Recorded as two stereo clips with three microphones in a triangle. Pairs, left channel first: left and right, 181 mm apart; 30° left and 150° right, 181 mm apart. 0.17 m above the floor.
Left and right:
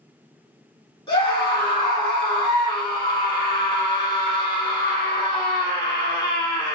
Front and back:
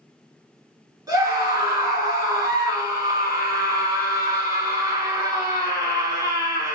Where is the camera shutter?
I don't hear a camera shutter.